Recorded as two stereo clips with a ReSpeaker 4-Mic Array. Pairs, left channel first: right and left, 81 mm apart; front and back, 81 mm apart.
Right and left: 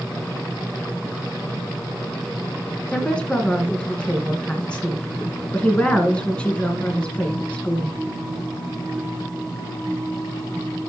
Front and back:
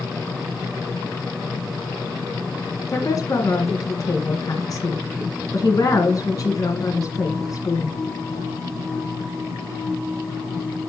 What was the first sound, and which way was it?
A woman speaking, 20° right.